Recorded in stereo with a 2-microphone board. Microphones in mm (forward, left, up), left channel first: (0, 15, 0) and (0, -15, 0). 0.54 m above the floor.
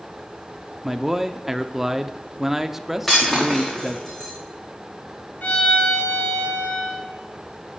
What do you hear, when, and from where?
0.8 s a man speaking: 10° right (ahead or behind), 0.8 m
3.1 s breaking glass: 15° left (ahead or behind), 5 m
5.4 s a violin: 65° left (ahead or behind), 5 m